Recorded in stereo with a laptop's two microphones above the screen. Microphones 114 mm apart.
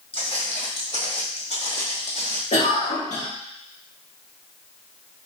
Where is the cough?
75° left (ahead or behind), 1.5 m.